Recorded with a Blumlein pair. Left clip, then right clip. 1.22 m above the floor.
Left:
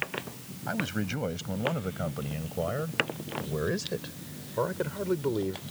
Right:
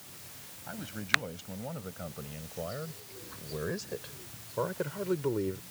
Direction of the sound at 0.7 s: 25° left.